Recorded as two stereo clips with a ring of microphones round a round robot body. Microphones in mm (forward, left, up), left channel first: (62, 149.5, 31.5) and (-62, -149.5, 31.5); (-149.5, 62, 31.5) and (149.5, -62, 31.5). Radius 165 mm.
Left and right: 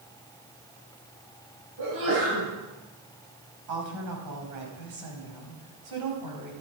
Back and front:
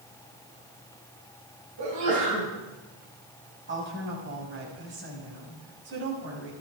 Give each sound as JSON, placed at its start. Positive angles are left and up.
{"t": 1.8, "sound": "a sneeze", "azimuth_deg": -60, "distance_m": 4.5}
{"t": 3.7, "sound": "a woman speaking", "azimuth_deg": -80, "distance_m": 5.5}